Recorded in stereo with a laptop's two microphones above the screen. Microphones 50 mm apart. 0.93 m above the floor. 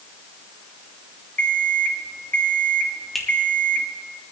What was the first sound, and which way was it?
An alarm clock, 30° left (ahead or behind).